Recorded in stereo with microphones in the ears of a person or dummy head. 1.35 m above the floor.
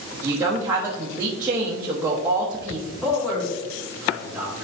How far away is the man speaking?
About 3 m.